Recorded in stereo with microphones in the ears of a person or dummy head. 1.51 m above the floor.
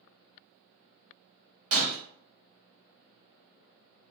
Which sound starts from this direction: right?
Breaking glass, at 1.7 s.